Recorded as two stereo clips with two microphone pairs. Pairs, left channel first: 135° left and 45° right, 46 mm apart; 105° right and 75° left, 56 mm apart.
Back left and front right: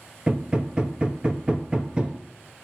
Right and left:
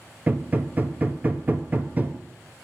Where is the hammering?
20° left, 0.7 m.